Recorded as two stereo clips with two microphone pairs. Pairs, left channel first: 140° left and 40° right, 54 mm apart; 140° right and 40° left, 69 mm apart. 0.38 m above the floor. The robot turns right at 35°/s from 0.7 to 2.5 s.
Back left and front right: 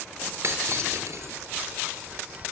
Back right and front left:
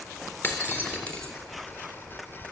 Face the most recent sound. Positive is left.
turn(degrees=-20)